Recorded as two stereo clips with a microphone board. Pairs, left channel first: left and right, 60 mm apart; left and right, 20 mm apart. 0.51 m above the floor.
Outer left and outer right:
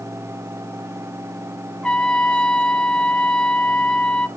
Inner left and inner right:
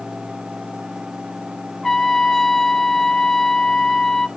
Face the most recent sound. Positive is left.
turn(degrees=15)  # may be behind; listen again after turning